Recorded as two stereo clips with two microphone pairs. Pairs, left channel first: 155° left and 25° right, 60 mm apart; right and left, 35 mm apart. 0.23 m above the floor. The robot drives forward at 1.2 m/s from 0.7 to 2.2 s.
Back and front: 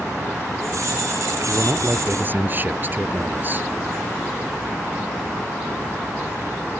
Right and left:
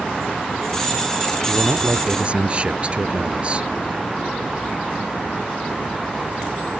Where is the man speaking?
25° left; by 3.7 s 30° left.